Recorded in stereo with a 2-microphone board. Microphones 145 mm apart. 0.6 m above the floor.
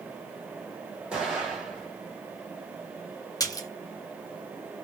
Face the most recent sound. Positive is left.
turn(degrees=25)  # may be behind; listen again after turning